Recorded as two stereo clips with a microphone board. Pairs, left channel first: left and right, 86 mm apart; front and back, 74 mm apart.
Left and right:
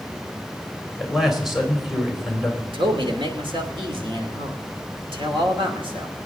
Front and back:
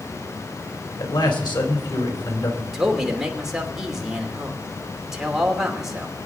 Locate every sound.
1.0 s a man speaking: 5° right, 3.5 m
2.7 s a man speaking: 95° right, 2.5 m